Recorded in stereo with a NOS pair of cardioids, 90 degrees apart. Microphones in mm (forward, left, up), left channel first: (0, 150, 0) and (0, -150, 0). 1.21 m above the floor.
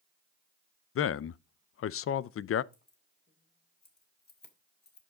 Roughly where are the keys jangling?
Ahead left.